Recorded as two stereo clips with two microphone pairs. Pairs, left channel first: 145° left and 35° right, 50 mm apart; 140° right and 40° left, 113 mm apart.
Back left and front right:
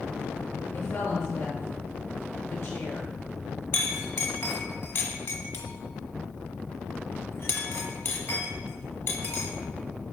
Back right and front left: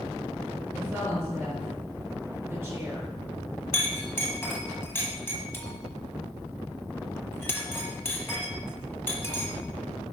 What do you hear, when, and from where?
0.7 s a woman speaking: 110° left, 4 m
3.7 s a clink: 155° left, 1.4 m